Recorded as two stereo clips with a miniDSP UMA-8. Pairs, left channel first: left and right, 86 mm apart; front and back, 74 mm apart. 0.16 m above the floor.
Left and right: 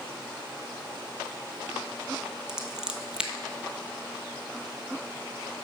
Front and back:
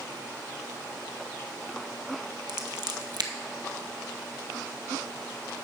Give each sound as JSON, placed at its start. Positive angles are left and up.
{"t": 2.5, "sound": "scissors", "azimuth_deg": -170, "distance_m": 0.9}